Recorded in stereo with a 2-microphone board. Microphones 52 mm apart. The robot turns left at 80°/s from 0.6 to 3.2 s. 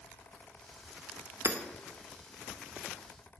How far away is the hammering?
About 1.1 m.